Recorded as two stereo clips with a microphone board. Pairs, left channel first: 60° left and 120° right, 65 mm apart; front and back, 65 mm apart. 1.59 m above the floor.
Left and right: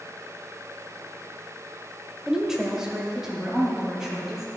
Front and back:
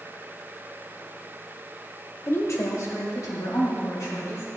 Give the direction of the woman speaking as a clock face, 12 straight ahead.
1 o'clock.